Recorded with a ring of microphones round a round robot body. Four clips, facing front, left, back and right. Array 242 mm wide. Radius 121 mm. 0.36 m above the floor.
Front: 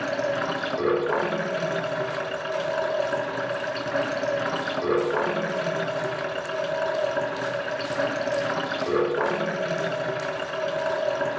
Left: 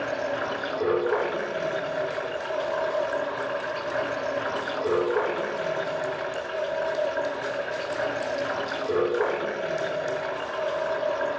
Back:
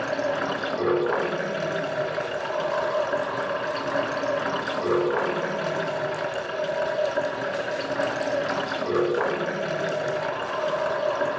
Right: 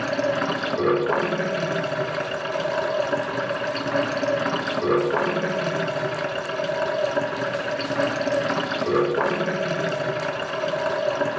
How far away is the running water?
About 3 m.